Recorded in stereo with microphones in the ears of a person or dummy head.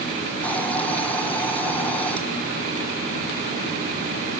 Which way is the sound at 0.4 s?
5° left (ahead or behind).